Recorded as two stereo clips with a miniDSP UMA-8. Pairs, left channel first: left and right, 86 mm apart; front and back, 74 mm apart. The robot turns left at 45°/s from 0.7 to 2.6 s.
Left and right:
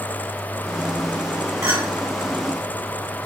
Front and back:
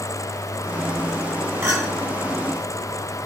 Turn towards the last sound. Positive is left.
turn(degrees=-175)